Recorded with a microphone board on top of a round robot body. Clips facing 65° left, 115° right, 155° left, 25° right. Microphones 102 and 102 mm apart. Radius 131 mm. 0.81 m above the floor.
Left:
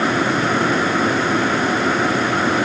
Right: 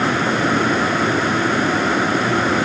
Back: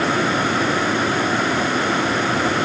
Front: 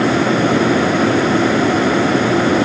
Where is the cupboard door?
No cupboard door in this recording.